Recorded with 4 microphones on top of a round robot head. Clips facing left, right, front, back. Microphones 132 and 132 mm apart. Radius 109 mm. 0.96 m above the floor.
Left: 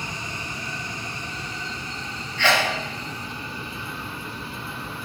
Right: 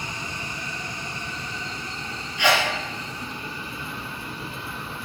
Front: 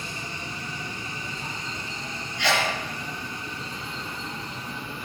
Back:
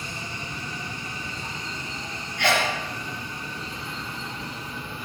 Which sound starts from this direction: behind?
A sneeze, at 2.4 s.